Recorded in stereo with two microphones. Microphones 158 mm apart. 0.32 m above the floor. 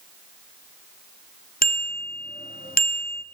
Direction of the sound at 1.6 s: 70° left (ahead or behind).